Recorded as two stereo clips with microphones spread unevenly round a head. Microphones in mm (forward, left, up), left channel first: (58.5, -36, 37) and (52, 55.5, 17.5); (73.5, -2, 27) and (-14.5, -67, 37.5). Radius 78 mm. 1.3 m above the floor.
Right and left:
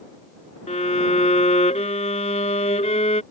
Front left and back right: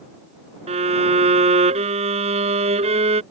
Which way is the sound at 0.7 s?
125° right.